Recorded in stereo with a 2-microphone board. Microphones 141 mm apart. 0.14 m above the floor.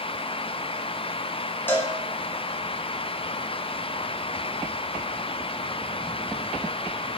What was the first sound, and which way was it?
A cowbell, 15° left (ahead or behind).